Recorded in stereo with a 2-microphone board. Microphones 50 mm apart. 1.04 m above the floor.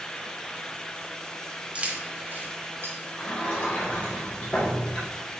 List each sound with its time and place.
1.8 s keys jangling: 25° right (ahead or behind), 1.1 m; by 3.0 s 65° right (ahead or behind), 1.7 m
3.2 s a sliding door: 30° left (ahead or behind), 3 m